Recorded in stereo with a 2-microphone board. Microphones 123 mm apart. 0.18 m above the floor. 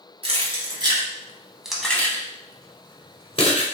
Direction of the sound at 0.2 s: 50° right (ahead or behind).